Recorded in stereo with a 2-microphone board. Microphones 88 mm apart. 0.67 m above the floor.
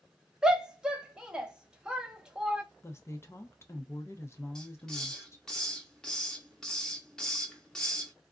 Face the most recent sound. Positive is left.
turn(degrees=5)  # may be behind; listen again after turning